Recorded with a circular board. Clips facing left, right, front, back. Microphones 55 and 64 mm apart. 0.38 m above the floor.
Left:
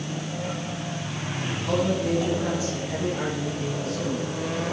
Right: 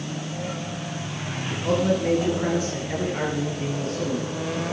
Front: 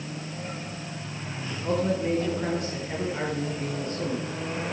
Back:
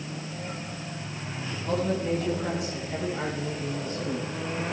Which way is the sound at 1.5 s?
45° right.